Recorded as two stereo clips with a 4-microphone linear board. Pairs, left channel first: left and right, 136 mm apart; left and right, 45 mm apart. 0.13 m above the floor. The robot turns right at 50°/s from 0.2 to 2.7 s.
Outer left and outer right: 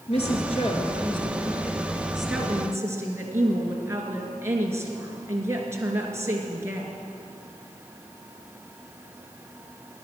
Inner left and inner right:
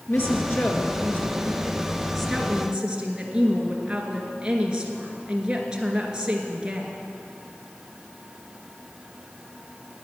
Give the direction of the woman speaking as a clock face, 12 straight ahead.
9 o'clock.